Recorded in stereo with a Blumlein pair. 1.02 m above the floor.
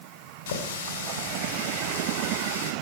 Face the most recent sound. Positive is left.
turn(degrees=60)